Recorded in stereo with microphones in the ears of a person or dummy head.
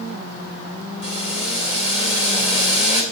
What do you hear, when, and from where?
1.0 s boiling: 30° left (ahead or behind), 2.5 m